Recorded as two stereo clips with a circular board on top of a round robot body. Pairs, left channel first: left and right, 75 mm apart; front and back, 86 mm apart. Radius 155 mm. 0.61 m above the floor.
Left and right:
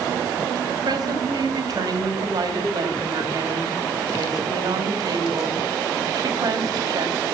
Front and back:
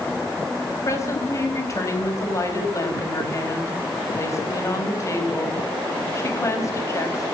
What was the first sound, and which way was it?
A woman speaking, 55° right.